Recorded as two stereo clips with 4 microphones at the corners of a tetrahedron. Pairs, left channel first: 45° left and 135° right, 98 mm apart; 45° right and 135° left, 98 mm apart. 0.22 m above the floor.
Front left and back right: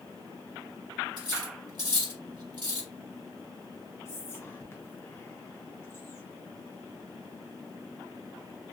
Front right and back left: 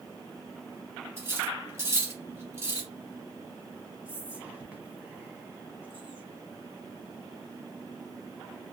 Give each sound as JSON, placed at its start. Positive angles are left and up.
{"t": 1.2, "sound": "cutlery clinking", "azimuth_deg": -170, "distance_m": 1.5}
{"t": 4.0, "sound": "whispering", "azimuth_deg": 75, "distance_m": 1.2}